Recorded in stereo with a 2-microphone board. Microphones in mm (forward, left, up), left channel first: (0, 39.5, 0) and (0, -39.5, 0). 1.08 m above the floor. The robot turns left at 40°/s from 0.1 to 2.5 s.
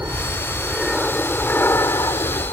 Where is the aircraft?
30° right (ahead or behind); by 2.5 s 55° left (ahead or behind).